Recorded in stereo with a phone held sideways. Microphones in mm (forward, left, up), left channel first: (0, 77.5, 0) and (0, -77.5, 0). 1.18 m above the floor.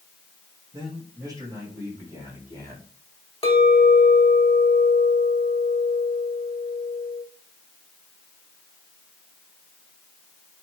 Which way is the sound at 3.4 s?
35° left (ahead or behind).